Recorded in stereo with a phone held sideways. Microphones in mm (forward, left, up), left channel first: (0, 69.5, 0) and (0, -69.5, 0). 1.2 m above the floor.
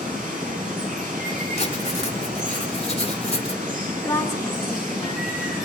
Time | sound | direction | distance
0.0 | running water | 85° right | 6 m
1.6 | writing | 45° left (ahead or behind) | 1.9 m
4.0 | a woman speaking | 20° left (ahead or behind) | 1.0 m